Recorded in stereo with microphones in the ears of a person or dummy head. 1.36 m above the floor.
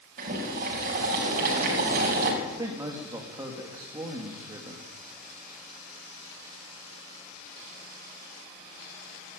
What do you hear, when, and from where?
0.2 s boiling: 45° right (ahead or behind), 6 m
2.4 s a man speaking: 25° right (ahead or behind), 2.5 m